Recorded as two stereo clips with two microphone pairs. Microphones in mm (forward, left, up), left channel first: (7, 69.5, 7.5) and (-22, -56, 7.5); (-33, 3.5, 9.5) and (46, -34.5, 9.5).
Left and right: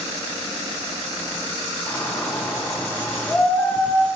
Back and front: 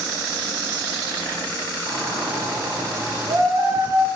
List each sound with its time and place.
1.9 s a shout: 5° right, 1.8 m